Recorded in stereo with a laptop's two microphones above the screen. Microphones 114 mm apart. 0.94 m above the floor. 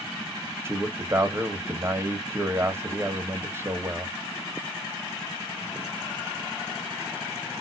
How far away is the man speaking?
About 0.9 m.